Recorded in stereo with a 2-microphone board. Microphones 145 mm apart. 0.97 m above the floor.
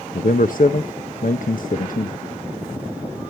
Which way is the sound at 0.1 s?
70° left (ahead or behind).